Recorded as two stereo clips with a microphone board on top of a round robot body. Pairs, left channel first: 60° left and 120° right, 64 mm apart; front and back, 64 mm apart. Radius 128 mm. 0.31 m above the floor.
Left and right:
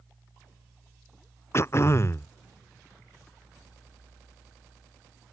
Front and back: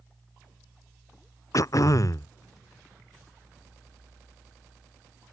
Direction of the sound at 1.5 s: 20° left.